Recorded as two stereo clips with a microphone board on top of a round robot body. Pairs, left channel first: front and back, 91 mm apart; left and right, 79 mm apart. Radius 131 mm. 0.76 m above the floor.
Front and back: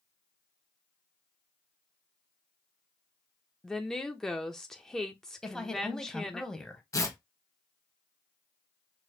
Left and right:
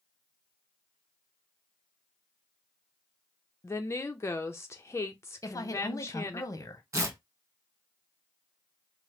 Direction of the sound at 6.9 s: 45° right.